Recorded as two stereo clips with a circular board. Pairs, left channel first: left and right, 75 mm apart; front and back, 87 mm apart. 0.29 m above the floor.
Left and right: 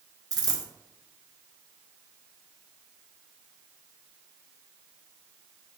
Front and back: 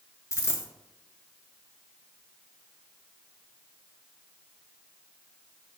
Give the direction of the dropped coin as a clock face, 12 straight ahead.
2 o'clock.